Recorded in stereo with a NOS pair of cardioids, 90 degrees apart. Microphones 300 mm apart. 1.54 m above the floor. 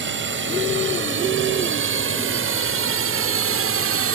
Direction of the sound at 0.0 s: 45° right.